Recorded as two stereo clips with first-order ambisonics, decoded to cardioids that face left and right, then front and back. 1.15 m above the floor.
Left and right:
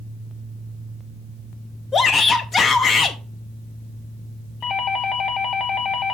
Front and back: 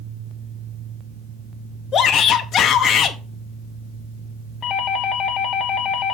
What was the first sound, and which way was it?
A shout, 35° left.